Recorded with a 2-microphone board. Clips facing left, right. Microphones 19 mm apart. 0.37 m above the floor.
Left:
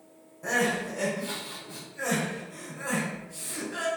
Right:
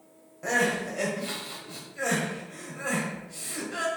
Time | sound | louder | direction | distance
0.4 | crying | right 1 dB | 35° right (ahead or behind) | 1.4 m